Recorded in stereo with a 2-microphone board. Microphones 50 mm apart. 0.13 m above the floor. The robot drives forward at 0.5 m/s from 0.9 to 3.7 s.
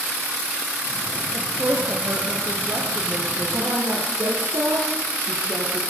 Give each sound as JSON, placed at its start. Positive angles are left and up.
{"t": 1.3, "sound": "a woman speaking", "side_deg": -55, "distance_m": 3.5}
{"t": 3.5, "sound": "a woman speaking", "side_deg": -70, "distance_m": 5.0}